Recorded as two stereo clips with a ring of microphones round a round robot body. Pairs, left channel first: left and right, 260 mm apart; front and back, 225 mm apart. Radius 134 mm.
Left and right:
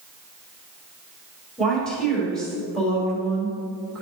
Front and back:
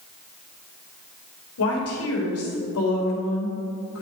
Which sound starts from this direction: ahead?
A woman speaking, at 1.6 s.